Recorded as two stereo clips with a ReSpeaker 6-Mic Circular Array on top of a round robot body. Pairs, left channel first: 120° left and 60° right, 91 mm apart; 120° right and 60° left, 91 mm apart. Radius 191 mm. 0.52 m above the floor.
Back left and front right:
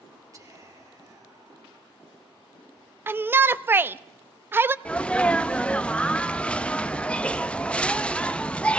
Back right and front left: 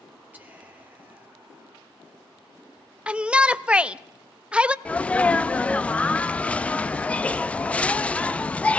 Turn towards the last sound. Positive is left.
turn(degrees=180)